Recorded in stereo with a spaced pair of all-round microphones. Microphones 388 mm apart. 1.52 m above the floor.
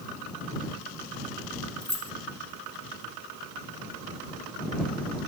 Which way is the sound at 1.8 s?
45° right (ahead or behind).